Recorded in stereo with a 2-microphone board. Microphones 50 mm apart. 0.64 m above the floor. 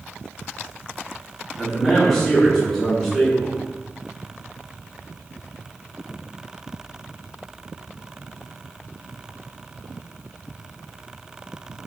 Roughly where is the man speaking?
Centre.